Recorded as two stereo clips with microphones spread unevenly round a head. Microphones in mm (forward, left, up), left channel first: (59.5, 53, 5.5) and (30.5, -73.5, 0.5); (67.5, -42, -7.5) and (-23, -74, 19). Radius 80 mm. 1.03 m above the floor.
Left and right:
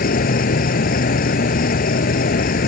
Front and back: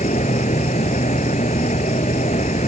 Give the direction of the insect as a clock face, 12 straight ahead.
10 o'clock.